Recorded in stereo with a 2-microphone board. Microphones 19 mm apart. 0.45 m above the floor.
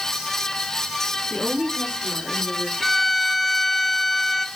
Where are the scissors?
I don't hear scissors.